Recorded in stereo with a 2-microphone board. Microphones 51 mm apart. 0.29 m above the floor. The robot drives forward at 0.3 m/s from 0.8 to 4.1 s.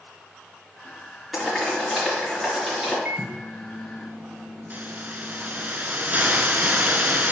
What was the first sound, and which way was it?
Boiling, centre (ahead or behind).